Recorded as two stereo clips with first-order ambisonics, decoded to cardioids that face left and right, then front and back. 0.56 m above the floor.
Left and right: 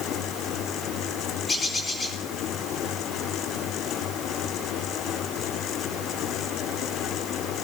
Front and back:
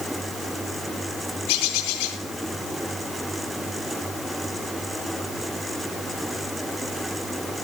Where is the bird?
15° left, 7 m.